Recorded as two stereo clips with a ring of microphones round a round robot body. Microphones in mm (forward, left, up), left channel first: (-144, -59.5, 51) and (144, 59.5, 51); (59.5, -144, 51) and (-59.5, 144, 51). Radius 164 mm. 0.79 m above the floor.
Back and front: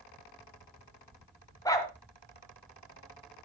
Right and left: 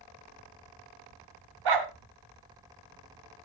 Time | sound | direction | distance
1.6 | a dog barking | 125° left | 2 m